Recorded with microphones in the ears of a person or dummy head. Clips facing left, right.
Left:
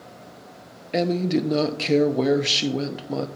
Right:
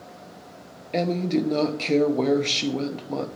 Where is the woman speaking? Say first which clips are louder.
Left 1 dB; 10° left (ahead or behind), 0.5 m.